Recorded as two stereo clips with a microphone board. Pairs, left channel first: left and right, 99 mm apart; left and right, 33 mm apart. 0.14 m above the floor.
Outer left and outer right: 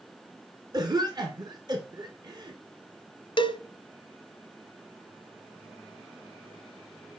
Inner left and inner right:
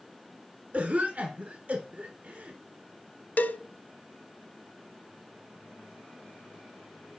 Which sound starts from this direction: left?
A cowbell, at 3.4 s.